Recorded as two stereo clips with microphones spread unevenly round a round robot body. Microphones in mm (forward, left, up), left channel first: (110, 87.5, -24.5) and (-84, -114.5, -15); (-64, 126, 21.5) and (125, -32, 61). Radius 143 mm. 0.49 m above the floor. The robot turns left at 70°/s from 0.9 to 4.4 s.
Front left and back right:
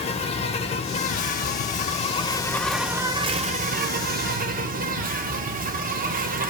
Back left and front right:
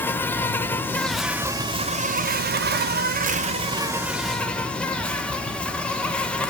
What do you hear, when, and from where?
0.0 s an insect: 85° left, 0.7 m; by 6.5 s 160° right, 0.7 m